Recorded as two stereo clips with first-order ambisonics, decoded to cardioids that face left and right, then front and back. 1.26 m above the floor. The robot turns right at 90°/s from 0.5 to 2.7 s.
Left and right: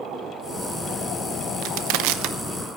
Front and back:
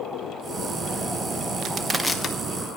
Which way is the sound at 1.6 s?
125° right.